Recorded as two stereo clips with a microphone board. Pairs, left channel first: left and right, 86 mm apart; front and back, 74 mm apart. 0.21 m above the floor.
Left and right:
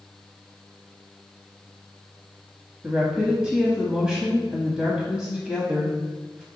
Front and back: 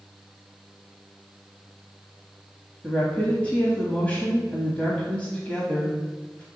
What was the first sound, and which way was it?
A woman speaking, 25° right.